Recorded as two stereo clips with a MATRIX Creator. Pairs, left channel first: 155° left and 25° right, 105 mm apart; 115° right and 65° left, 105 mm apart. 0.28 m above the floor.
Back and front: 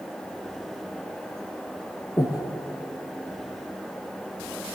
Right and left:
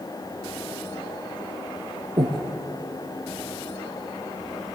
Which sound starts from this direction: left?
Breathing, at 2.2 s.